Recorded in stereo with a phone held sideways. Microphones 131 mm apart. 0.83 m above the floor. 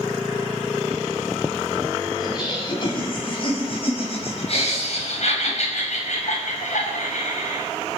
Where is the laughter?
35° left (ahead or behind), 7 m; by 7.7 s 75° left (ahead or behind), 6.5 m.